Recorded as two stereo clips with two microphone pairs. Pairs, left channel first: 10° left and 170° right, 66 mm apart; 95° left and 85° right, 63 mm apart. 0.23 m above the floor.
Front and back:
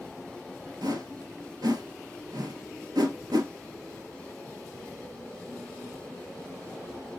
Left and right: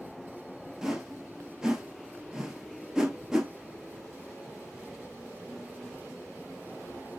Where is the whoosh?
170° right, 0.8 m.